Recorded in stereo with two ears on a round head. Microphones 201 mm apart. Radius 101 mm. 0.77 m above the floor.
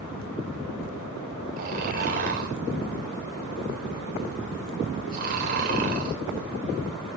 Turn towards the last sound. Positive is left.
turn(degrees=-40)  # may be behind; listen again after turning